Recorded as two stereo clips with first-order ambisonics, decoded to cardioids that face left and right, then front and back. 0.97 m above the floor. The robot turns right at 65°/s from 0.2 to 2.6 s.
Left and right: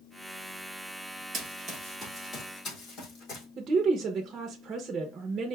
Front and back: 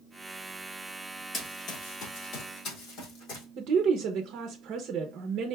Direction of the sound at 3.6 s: 145° right.